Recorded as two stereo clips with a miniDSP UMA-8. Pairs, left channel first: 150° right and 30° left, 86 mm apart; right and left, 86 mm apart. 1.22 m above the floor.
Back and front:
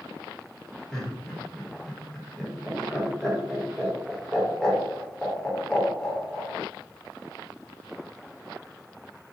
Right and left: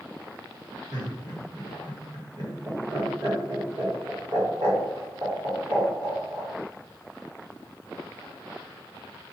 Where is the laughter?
125° left, 1.4 m.